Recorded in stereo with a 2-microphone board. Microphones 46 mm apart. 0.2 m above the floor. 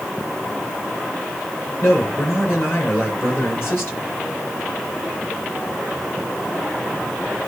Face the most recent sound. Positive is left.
turn(degrees=50)  # may be behind; listen again after turning